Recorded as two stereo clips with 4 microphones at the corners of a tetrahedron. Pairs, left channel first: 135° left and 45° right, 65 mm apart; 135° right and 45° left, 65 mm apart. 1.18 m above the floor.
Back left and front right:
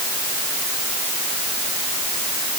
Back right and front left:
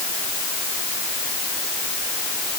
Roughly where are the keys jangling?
I don't hear keys jangling.